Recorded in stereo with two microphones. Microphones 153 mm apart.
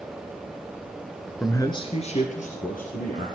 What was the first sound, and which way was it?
A man speaking, 10° left (ahead or behind).